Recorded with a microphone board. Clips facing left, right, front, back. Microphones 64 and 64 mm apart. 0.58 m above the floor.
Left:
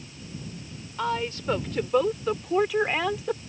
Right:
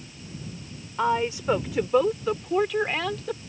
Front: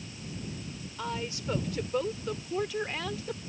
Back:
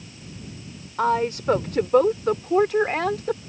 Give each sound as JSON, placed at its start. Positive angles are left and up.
{"t": 1.0, "sound": "a woman speaking", "azimuth_deg": -160}